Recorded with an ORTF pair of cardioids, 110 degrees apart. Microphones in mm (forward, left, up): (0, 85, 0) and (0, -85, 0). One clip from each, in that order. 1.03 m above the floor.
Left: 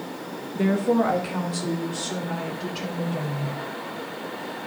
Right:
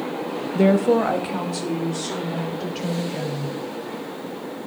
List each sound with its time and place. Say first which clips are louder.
0.6 s a woman speaking: right 5 dB; 40° right, 1.0 m; by 3.5 s 10° right, 5 m